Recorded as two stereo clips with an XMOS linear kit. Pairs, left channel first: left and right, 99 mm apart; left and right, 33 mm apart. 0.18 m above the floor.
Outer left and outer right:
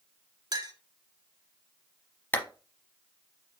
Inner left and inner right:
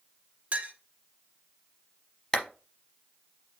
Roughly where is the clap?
Centre.